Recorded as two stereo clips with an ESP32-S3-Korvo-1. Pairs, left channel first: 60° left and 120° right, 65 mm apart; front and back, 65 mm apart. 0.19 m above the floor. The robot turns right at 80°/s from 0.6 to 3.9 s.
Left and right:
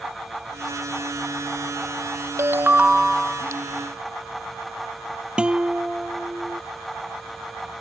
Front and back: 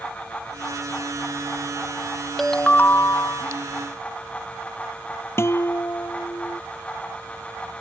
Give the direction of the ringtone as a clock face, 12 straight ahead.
3 o'clock.